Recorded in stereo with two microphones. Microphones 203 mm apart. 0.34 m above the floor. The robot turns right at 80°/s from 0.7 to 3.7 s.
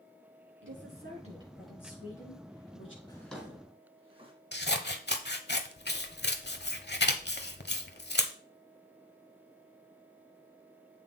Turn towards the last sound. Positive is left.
turn(degrees=55)  # may be behind; listen again after turning